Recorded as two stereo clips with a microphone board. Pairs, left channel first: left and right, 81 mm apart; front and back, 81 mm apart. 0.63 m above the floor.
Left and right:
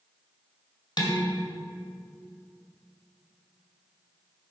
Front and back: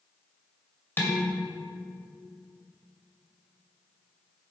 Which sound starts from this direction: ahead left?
Dishes clattering, at 1.0 s.